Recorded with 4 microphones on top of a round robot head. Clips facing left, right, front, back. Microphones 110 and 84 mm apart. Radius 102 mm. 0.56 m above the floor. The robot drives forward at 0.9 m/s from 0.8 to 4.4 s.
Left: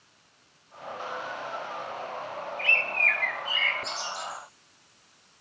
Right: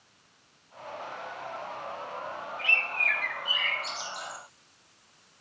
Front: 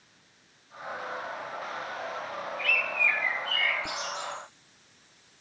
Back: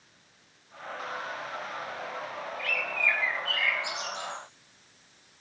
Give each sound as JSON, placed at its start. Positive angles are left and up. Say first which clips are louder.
{"t": 2.6, "sound": "a bird", "louder": "left 3 dB, front 1 dB", "azimuth_deg": -150, "distance_m": 0.9}